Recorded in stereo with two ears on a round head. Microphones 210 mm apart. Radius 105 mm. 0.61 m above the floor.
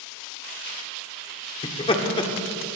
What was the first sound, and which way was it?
Laughter, 25° left (ahead or behind).